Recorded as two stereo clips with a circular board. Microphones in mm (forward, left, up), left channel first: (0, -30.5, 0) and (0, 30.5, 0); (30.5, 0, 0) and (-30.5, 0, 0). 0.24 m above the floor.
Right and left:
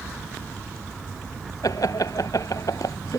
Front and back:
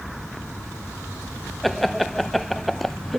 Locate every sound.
1.6 s laughter: 90° right